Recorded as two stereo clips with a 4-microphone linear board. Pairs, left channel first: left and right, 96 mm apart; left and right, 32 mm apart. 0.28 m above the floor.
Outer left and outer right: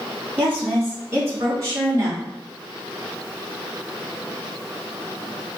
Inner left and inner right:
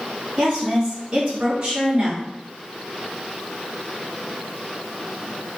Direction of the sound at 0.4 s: 15° right (ahead or behind).